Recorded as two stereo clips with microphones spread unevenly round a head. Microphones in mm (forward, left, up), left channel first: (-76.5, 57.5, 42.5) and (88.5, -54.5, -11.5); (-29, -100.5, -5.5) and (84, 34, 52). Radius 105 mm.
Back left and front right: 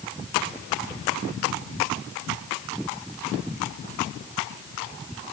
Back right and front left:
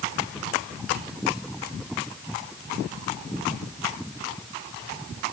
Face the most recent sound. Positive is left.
No sound to turn to.